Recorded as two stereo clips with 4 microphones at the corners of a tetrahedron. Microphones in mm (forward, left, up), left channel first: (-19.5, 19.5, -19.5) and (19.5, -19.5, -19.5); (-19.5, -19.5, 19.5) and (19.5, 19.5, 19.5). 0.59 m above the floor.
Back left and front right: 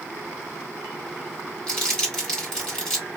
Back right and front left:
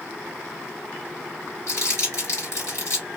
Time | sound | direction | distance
1.7 | crumpling | 150° right | 2.5 m